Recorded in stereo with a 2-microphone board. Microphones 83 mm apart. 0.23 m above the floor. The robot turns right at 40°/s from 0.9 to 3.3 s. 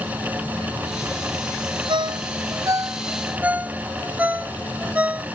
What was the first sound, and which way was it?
A ringtone, 75° right (ahead or behind).